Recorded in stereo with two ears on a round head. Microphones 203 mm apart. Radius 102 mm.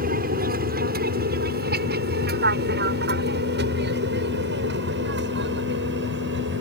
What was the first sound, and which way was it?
An aircraft, 40° right (ahead or behind).